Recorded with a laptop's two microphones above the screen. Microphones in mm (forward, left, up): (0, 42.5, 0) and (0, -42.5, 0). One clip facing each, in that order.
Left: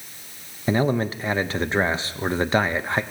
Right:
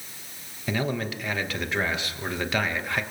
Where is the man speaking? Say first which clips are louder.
Left 7 dB; 30° left (ahead or behind), 0.9 m.